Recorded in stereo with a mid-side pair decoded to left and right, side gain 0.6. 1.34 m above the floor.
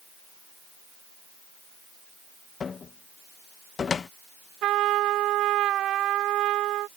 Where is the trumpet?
60° right.